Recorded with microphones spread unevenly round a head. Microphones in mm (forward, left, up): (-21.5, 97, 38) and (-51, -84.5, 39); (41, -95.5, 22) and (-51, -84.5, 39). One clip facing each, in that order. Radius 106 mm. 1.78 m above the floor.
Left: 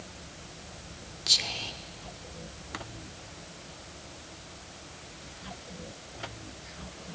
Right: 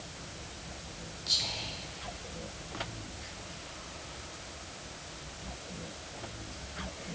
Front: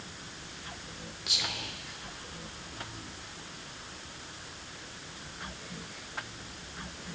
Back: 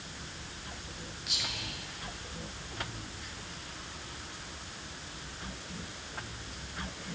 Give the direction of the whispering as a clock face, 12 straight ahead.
10 o'clock.